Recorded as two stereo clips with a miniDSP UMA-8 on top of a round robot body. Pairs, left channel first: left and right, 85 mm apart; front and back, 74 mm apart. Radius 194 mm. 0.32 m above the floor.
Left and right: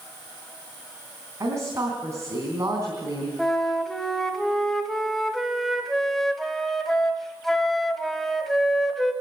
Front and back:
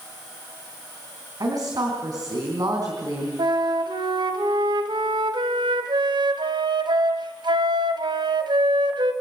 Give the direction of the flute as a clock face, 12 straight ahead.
6 o'clock.